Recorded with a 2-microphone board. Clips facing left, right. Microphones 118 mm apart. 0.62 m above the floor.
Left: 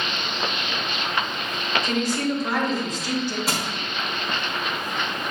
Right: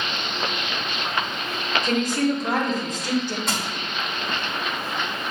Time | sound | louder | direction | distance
1.8 | a woman speaking | right 3 dB | 50° right (ahead or behind) | 1.2 m
3.5 | crushing | left 1 dB | 5° left (ahead or behind) | 1.0 m